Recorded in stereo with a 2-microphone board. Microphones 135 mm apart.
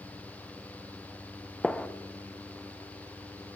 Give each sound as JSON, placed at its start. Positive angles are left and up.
{"t": 1.6, "sound": "a gunshot", "side_deg": 5, "distance_m": 0.6}